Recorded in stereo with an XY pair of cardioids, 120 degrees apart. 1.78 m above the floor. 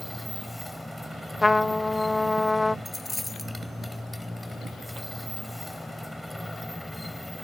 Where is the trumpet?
10° left.